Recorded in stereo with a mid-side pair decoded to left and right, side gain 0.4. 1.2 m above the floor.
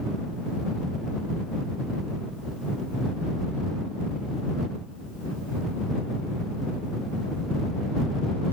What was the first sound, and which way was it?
Only background noise.